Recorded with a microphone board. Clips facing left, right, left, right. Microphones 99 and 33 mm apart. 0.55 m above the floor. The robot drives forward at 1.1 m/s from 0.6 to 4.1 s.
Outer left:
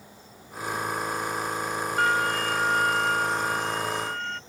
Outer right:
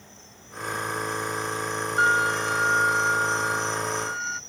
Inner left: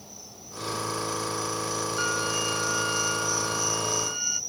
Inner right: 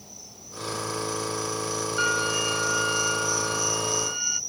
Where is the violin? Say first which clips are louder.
Outer right 2 dB, inner right 5 dB; 20° right (ahead or behind); by 4.4 s 10° right (ahead or behind).